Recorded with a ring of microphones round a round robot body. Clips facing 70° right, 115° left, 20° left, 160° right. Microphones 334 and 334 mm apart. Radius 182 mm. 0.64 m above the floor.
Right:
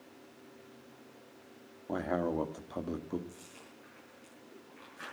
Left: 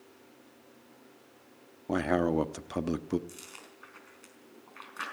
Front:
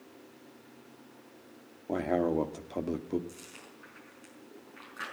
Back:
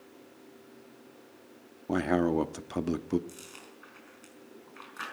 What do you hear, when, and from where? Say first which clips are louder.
1.9 s a man speaking: left 6 dB, back 2 dB; 145° left, 1.0 m
3.3 s chewing: left 1 dB, back 1 dB; 130° left, 4.5 m